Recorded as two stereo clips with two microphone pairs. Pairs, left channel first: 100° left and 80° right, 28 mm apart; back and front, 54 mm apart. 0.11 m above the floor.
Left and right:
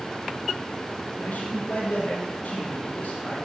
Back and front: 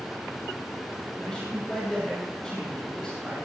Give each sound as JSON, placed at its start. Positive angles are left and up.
{"t": 1.2, "sound": "a man speaking", "azimuth_deg": 105, "distance_m": 3.5}